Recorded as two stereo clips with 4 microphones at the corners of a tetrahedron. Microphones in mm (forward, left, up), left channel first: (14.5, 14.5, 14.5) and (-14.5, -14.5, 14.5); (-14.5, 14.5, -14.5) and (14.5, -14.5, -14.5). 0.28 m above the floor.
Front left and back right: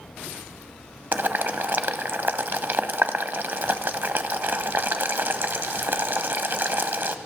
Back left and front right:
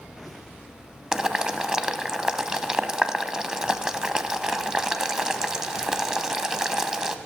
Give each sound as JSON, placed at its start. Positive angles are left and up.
{"t": 1.1, "sound": "boiling", "azimuth_deg": -120, "distance_m": 0.9}